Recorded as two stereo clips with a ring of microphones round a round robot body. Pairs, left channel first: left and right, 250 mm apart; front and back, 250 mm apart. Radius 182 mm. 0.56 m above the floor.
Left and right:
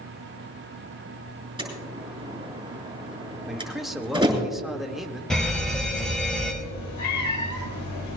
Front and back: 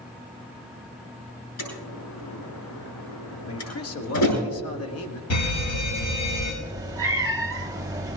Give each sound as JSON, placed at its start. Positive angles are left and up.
{"t": 1.6, "sound": "a door slam", "azimuth_deg": -20, "distance_m": 8.0}
{"t": 3.5, "sound": "a man speaking", "azimuth_deg": 0, "distance_m": 1.7}
{"t": 5.3, "sound": "a fire alarm", "azimuth_deg": 0, "distance_m": 5.5}
{"t": 6.6, "sound": "a cat meowing", "azimuth_deg": 105, "distance_m": 1.4}